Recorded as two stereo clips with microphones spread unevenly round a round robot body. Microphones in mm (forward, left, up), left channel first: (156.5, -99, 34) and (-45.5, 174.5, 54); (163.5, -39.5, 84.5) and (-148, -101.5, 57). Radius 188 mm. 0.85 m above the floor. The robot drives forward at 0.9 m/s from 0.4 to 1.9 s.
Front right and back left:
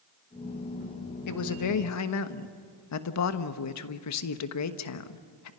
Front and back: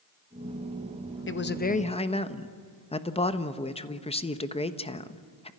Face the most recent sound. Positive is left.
turn(degrees=-60)